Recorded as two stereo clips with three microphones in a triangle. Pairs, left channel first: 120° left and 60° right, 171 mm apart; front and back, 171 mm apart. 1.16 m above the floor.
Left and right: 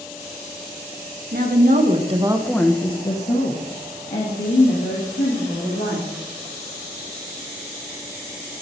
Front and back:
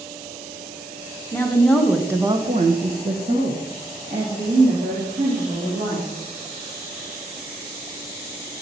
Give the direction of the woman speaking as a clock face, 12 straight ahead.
2 o'clock.